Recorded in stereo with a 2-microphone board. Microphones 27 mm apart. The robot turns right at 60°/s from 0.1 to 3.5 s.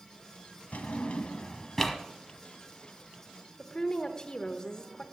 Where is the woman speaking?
30° left (ahead or behind), 1.0 m.